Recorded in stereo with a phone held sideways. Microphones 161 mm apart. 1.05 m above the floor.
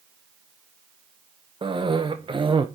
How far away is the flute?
No flute in this recording.